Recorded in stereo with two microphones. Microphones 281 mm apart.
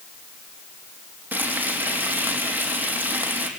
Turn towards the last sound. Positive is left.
turn(degrees=-5)  # may be behind; listen again after turning